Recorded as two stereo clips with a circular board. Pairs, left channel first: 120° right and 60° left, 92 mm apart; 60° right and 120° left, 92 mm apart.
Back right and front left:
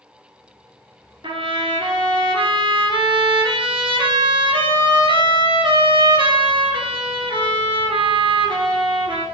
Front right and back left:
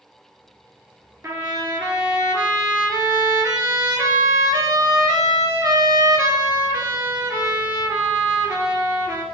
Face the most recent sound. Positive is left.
turn(degrees=60)